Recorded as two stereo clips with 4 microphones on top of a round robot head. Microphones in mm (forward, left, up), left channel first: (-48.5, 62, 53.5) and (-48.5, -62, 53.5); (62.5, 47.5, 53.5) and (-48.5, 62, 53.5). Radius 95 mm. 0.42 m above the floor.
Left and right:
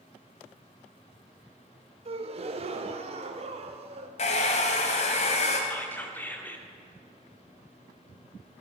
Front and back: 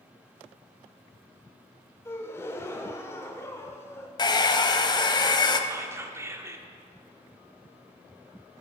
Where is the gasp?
70° right, 0.7 m.